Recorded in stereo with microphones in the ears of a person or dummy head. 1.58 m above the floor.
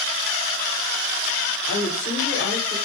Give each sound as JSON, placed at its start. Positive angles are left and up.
{"t": 1.7, "sound": "a woman speaking", "side_deg": 50, "distance_m": 1.4}